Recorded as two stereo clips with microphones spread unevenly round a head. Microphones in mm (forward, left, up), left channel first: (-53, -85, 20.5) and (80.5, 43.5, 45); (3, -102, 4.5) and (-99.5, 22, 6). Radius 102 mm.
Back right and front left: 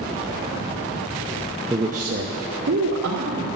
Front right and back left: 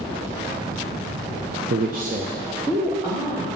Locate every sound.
1.7 s a man speaking: 110° left, 0.7 m; by 3.5 s 50° left, 2.5 m